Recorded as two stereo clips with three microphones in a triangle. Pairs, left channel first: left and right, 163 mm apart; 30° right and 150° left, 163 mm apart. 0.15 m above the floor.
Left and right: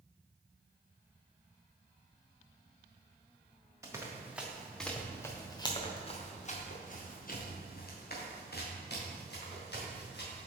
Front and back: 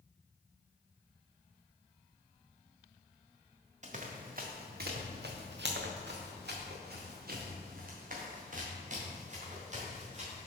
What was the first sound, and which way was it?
Running footsteps, 160° right.